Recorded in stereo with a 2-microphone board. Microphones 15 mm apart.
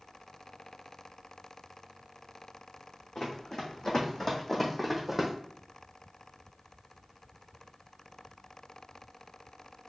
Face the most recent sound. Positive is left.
turn(degrees=-15)  # may be behind; listen again after turning